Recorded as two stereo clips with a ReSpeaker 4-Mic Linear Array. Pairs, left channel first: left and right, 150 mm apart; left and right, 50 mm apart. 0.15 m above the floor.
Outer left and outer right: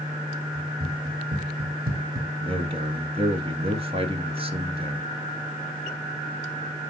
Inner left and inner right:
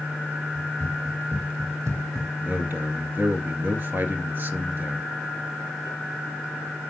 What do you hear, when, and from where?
0.6 s running footsteps: 70° right (ahead or behind), 3 m; by 2.3 s 85° right, 1.3 m
2.4 s a man speaking: 40° right (ahead or behind), 2 m